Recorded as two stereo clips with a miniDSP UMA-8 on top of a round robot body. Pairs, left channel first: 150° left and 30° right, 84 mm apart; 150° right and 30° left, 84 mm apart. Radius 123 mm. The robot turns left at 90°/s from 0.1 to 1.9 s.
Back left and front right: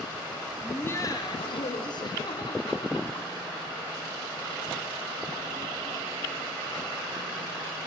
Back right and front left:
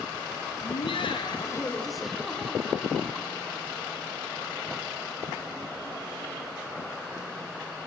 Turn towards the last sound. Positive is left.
turn(degrees=120)